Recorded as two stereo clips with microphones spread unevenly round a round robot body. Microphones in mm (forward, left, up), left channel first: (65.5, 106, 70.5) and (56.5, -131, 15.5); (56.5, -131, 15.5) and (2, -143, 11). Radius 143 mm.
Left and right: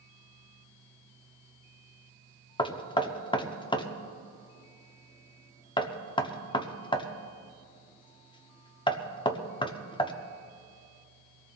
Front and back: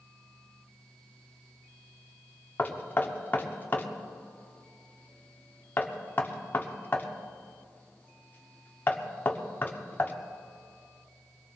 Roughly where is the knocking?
Ahead.